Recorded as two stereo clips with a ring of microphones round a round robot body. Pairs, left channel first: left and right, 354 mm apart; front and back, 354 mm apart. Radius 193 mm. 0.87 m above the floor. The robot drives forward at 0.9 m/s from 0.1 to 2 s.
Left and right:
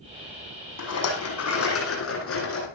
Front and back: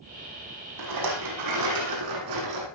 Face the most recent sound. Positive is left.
turn(degrees=140)